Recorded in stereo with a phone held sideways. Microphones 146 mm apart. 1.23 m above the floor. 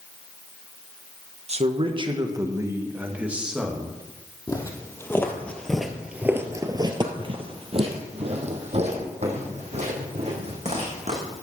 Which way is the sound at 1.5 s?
50° right (ahead or behind).